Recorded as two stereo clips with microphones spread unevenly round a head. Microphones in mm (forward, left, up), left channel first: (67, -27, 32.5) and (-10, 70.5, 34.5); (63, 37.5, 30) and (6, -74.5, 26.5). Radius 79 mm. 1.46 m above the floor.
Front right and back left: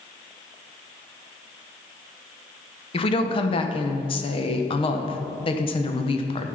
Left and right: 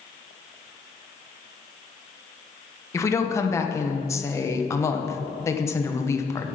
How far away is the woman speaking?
About 1.1 m.